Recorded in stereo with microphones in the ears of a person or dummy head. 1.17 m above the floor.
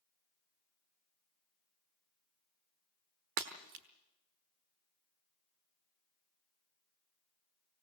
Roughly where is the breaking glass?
Right.